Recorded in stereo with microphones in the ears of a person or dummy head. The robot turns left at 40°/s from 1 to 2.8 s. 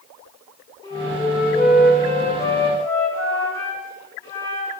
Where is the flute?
135° left, 1.5 m; by 4.7 s 65° left, 1.5 m.